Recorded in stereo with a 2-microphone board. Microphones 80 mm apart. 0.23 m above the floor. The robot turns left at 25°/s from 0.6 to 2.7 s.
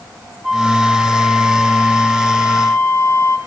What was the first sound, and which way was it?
A flute, 175° right.